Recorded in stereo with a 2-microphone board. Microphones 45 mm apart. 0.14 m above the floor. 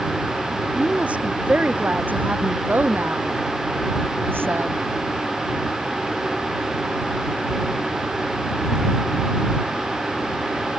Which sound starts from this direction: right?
A woman speaking, at 0.8 s.